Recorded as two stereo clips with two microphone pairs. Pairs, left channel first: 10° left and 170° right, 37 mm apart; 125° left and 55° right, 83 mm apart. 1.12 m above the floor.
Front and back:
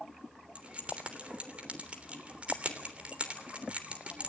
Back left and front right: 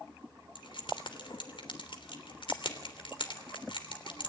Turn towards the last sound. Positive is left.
turn(degrees=130)